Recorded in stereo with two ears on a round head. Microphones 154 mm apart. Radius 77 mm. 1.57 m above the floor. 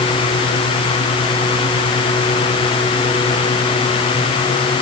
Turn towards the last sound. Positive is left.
No sound to turn to.